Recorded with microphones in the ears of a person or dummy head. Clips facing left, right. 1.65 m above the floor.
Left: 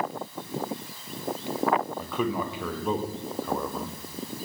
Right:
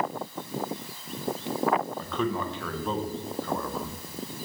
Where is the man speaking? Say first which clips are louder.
Left 1 dB; 10° left (ahead or behind), 0.5 m.